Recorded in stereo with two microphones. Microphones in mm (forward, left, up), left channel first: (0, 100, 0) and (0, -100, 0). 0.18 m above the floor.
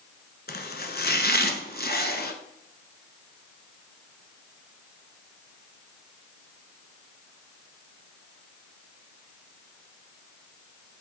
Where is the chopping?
50° left (ahead or behind), 1.1 m.